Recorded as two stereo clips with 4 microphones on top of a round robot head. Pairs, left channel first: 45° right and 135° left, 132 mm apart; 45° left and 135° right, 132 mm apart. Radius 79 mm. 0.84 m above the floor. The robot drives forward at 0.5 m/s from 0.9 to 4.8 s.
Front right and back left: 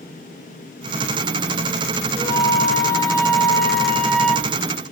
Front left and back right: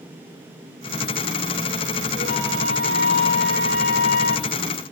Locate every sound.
2.2 s a flute: 20° left, 2 m; by 4.5 s 45° left, 1.1 m